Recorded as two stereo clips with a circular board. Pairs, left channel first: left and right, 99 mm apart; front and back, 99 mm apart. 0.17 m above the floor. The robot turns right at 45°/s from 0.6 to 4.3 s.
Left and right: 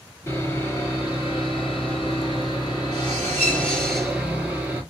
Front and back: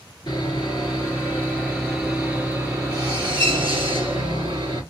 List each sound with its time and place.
0.3 s sawing: 30° left, 2.5 m; by 4.8 s 165° right, 2.5 m